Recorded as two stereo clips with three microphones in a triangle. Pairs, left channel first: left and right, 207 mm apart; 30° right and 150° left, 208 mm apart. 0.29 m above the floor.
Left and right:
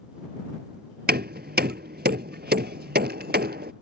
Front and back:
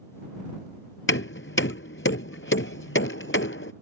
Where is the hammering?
50° right.